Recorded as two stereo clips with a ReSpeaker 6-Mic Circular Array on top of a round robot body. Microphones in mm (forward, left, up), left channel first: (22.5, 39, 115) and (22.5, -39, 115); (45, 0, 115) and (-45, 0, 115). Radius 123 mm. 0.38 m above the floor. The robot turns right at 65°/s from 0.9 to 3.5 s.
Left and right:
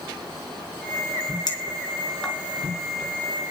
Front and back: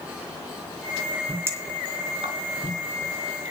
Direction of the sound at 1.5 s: 115° left.